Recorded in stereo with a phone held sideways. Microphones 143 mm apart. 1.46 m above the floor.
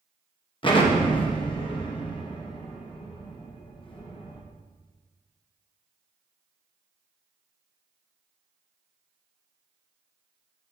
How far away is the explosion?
About 0.9 m.